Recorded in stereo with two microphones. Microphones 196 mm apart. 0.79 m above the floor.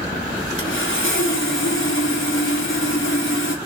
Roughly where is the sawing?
Left.